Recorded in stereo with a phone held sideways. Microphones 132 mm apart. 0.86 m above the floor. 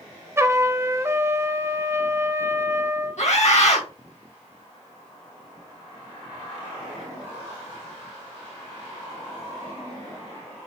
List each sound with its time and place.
0.4 s a trumpet: 20° right (ahead or behind), 0.7 m
3.2 s a scream: 65° left (ahead or behind), 2 m